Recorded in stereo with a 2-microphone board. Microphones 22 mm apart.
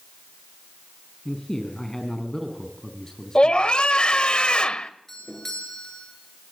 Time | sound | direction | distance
1.2 | a man speaking | 25° left (ahead or behind) | 4 m
3.4 | a scream | 50° left (ahead or behind) | 1.6 m
5.1 | a doorbell | 15° left (ahead or behind) | 8.5 m